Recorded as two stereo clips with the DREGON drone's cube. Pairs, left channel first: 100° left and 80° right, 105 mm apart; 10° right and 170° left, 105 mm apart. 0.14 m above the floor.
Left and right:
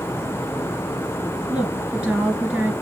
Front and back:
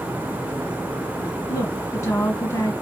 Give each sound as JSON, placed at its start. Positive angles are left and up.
{"t": 1.5, "sound": "a woman speaking", "azimuth_deg": -10, "distance_m": 1.5}